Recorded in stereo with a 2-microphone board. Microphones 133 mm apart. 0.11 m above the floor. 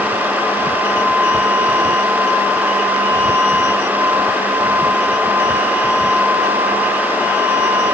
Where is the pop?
No pop in this recording.